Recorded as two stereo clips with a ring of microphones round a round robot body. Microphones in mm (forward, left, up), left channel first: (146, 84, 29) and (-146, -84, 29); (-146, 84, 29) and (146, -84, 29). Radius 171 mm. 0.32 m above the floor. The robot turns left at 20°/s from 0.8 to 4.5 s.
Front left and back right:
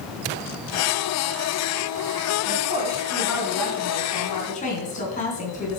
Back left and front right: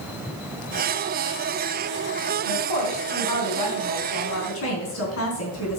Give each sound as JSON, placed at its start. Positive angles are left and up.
{"t": 2.5, "sound": "a woman speaking", "azimuth_deg": 140, "distance_m": 3.5}